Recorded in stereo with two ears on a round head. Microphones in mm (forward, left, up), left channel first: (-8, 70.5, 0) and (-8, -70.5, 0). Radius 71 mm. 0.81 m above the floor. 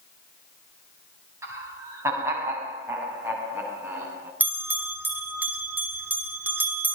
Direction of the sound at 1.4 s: 20° right (ahead or behind).